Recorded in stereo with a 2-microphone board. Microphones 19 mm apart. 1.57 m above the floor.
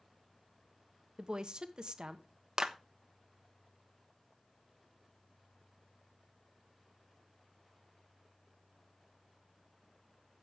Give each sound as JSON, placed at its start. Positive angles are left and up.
{"t": 1.2, "sound": "a woman speaking", "side_deg": -55, "distance_m": 1.1}
{"t": 2.6, "sound": "a clap", "side_deg": -50, "distance_m": 1.1}